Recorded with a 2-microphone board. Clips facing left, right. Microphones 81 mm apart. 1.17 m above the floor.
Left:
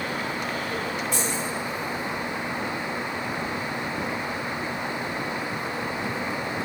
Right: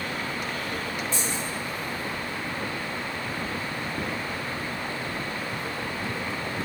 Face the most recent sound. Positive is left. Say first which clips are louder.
# left 3 dB
turn(degrees=85)